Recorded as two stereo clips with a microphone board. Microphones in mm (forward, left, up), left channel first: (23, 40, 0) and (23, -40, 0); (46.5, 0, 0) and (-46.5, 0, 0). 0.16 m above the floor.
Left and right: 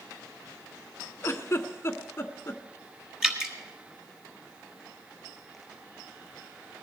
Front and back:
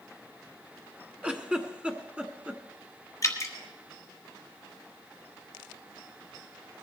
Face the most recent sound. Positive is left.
turn(degrees=-15)